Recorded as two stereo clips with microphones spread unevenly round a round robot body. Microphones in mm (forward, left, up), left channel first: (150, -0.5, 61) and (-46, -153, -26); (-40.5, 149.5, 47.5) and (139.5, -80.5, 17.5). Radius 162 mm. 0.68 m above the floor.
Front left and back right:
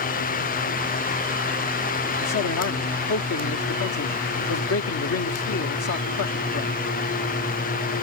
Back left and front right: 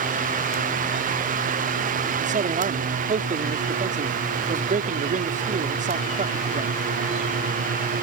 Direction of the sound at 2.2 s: 5° left.